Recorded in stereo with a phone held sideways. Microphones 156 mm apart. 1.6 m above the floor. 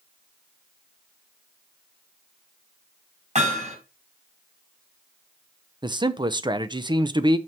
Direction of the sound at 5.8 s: 30° right (ahead or behind).